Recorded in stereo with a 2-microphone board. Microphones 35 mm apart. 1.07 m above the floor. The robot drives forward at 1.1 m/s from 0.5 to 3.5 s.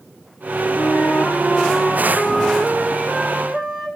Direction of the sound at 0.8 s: 65° left (ahead or behind).